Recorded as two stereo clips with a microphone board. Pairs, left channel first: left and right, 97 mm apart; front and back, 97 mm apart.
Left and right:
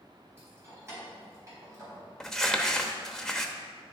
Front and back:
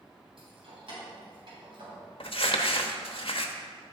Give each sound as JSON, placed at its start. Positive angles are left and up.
{"t": 0.4, "sound": "keys jangling", "azimuth_deg": -155, "distance_m": 4.0}
{"t": 2.2, "sound": "crumpling", "azimuth_deg": 5, "distance_m": 1.0}